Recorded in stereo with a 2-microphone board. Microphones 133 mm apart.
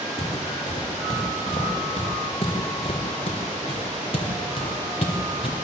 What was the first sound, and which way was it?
Footsteps, 40° left (ahead or behind).